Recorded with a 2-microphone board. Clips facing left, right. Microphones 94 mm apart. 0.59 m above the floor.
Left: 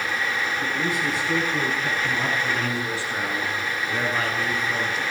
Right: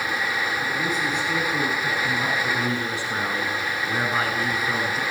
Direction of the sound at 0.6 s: 10° left (ahead or behind).